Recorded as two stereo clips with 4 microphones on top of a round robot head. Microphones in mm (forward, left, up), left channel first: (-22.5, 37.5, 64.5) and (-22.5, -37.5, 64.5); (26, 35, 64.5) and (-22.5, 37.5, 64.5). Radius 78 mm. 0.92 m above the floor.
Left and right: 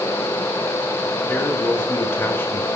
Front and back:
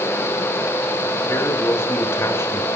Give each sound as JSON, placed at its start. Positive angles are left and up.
{"t": 1.3, "sound": "a man speaking", "azimuth_deg": 25, "distance_m": 3.5}